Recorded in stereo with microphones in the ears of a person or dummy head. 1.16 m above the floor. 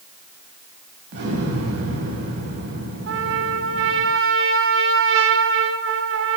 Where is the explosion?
65° right (ahead or behind), 4 m.